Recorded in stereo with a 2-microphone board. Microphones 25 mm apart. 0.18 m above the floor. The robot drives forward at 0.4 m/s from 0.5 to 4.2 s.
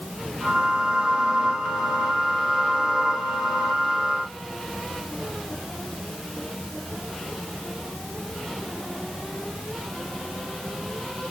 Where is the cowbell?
No cowbell in this recording.